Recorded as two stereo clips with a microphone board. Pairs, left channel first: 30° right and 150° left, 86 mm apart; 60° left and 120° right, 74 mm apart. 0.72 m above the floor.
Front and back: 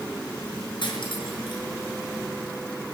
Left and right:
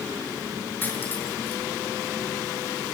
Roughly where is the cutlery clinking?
Ahead.